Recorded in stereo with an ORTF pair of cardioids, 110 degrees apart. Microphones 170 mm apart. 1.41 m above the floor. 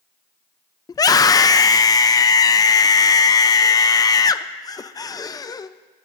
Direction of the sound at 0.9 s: 20° left.